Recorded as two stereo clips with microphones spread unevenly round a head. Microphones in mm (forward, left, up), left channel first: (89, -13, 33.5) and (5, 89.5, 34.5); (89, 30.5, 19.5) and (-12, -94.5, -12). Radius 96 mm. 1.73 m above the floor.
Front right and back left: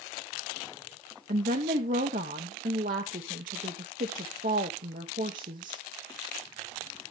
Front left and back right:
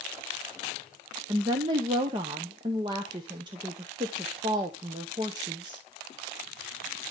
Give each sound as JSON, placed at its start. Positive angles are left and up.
{"t": 1.3, "sound": "a woman speaking", "azimuth_deg": 160, "distance_m": 0.7}